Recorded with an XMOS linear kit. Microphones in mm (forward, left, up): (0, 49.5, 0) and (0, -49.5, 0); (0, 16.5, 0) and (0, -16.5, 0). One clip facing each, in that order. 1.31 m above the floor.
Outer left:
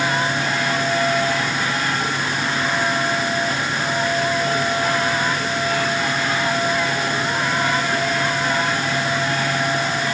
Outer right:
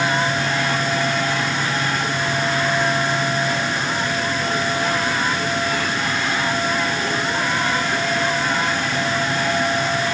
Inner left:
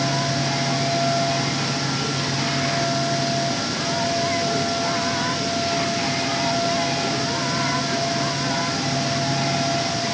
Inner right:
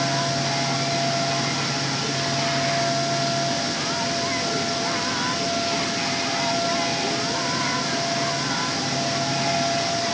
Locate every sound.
Only background noise.